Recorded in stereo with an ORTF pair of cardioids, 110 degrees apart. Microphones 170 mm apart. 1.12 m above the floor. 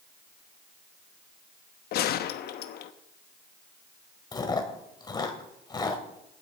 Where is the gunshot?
70° left, 1.0 m.